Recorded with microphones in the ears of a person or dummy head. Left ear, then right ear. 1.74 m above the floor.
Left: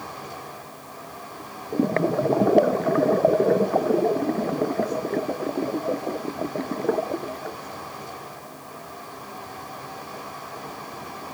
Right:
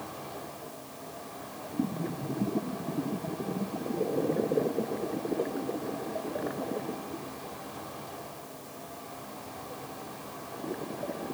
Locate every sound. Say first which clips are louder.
0.0 s a fan: left 5 dB; 45° left (ahead or behind), 4.5 m